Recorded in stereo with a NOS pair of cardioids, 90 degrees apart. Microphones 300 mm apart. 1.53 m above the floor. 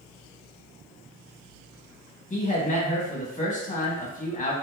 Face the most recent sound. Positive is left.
turn(degrees=25)